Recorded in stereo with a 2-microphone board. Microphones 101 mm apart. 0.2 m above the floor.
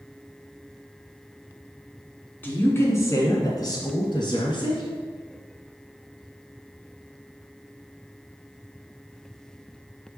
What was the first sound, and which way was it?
A woman speaking, 20° left (ahead or behind).